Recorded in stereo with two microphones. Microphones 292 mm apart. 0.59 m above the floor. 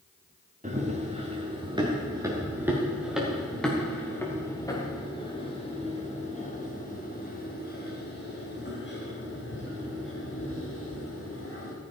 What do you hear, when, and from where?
0.6 s running footsteps: 25° right (ahead or behind), 4 m; by 11.7 s 50° left (ahead or behind), 7 m